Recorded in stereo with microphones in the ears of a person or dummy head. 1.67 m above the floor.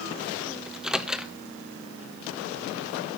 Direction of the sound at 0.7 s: 10° right (ahead or behind).